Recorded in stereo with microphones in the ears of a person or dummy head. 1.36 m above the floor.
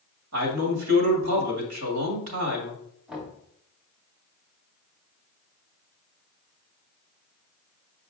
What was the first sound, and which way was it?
A man speaking, 90° right.